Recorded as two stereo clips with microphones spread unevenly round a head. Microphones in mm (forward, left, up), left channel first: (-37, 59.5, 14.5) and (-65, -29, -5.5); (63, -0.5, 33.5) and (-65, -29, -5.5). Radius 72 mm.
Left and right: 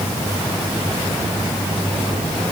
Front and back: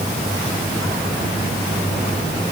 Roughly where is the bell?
No bell in this recording.